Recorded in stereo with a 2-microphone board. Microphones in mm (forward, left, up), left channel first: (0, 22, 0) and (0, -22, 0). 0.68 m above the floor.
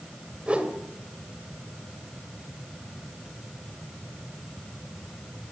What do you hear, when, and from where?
0.5 s a whoosh: 30° right (ahead or behind), 2.5 m